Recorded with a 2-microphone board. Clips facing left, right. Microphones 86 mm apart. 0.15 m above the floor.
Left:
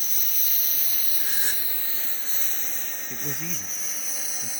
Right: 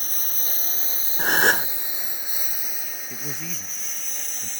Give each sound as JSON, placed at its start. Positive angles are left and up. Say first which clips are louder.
{"t": 0.0, "sound": "a lawn mower", "louder": "right 4 dB", "side_deg": -40}
{"t": 1.2, "sound": "a gasp", "louder": "right 17 dB", "side_deg": -70}
{"t": 3.1, "sound": "a man speaking", "louder": "left 1 dB", "side_deg": 0}